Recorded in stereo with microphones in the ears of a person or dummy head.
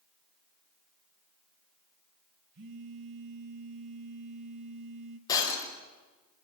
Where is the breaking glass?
20° left (ahead or behind), 4 m.